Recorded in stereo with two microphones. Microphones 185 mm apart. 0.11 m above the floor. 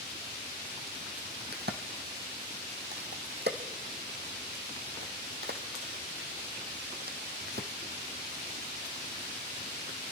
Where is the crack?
60° right (ahead or behind), 1.4 m.